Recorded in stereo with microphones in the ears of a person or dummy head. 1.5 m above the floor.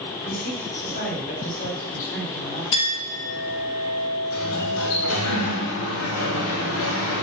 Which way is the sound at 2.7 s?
25° left (ahead or behind).